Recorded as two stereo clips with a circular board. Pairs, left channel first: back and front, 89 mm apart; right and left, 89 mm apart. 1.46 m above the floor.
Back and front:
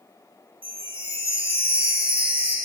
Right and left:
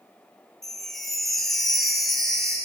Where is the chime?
5° right, 3.5 m.